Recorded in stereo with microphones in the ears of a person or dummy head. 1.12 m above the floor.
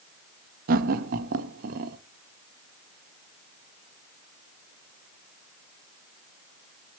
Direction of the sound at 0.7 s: 45° right (ahead or behind).